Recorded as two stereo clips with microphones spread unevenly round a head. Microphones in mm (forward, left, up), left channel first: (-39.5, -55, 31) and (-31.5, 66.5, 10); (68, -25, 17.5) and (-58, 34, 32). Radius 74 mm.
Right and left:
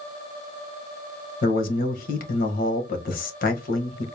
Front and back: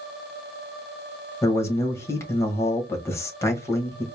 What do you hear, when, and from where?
1.4 s a man speaking: 95° right, 1.6 m